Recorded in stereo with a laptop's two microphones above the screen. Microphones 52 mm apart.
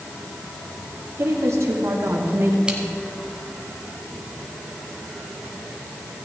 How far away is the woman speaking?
About 2 m.